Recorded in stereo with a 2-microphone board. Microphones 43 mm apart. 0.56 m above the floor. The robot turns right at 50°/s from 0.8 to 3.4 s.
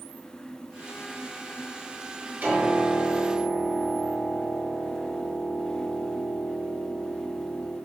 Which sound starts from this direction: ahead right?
A piano, at 2.4 s.